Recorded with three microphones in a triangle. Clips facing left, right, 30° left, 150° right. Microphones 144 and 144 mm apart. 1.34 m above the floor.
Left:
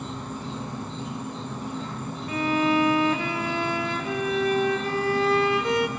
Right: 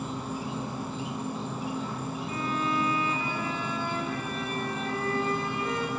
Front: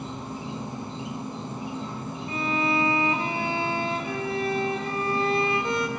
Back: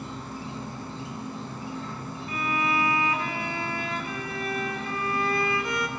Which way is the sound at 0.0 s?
20° right.